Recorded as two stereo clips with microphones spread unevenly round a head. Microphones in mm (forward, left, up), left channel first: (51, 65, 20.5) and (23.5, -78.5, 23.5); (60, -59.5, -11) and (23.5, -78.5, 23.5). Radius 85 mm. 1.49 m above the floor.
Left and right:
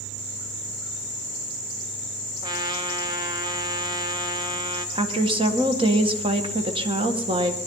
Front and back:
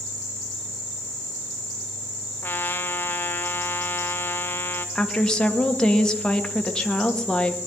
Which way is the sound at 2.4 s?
55° right.